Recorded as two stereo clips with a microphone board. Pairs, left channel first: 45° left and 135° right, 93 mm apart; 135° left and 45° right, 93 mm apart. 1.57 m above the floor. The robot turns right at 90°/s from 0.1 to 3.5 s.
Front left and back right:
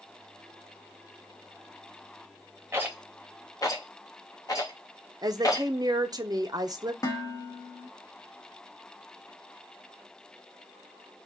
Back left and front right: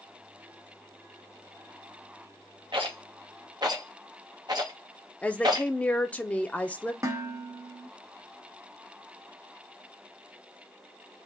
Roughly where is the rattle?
Right.